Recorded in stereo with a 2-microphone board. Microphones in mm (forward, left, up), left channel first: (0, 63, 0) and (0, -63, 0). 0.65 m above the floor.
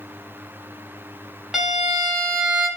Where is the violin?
5° right (ahead or behind), 0.8 m.